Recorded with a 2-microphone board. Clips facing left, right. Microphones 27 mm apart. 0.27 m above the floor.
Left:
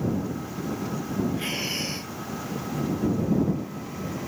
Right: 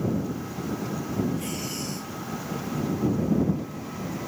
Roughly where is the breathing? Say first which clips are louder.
Left 3 dB; left.